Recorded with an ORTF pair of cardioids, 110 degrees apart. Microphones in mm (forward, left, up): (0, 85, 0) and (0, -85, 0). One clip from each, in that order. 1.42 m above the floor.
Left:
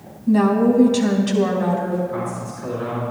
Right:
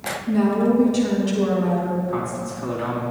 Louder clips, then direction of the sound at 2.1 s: Right 1 dB; 45° right.